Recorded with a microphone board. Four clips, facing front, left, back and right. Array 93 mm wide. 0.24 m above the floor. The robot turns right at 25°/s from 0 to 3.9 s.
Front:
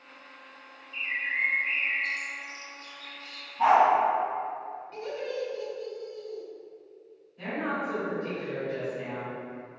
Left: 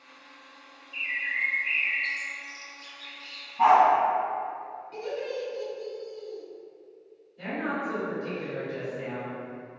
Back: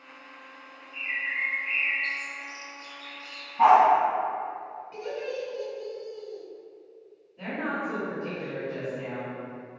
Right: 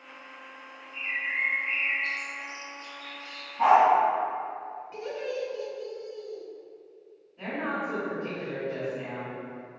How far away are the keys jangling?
I don't hear keys jangling.